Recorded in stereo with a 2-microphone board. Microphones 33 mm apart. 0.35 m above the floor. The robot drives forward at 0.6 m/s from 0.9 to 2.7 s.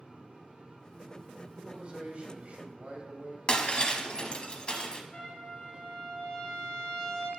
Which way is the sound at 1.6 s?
40° right (ahead or behind).